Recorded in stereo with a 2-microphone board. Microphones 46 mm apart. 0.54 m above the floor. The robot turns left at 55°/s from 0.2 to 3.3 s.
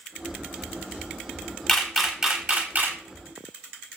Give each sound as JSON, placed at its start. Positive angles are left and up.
{"t": 1.7, "sound": "a camera shutter", "side_deg": 5, "distance_m": 0.8}